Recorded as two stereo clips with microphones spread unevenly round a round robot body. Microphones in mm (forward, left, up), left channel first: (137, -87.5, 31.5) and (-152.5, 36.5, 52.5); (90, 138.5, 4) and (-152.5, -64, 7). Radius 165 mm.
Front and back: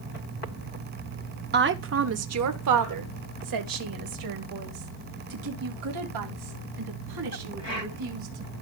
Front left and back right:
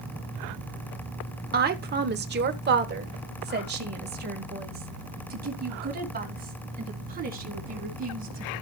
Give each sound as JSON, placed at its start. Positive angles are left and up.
{"t": 1.5, "sound": "a woman speaking", "azimuth_deg": -170, "distance_m": 0.9}